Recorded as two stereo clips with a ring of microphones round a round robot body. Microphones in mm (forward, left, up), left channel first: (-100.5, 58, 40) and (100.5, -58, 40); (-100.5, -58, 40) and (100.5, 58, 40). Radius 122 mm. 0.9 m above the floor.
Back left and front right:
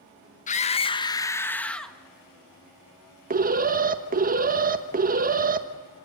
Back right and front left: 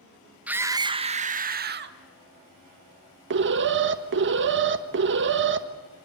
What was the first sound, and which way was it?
A scream, 110° left.